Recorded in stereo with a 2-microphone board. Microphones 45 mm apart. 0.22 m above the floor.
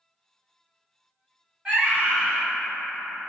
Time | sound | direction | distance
1.6 | a scream | 15° right (ahead or behind) | 1.4 m